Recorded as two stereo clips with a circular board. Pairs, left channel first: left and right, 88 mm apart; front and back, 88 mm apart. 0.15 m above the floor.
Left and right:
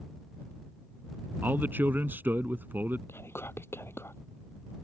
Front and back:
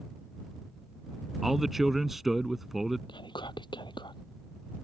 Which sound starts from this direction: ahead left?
Whispering, at 3.1 s.